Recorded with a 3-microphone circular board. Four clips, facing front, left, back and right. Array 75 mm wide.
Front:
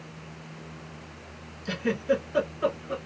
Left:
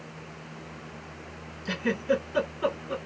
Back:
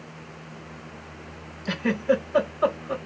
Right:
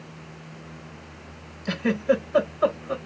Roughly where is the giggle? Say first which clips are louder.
Right 4 dB, back 3 dB; behind right.